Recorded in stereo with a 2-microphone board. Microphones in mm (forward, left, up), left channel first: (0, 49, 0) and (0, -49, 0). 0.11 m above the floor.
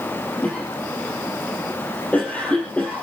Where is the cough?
15° left (ahead or behind), 3.5 m.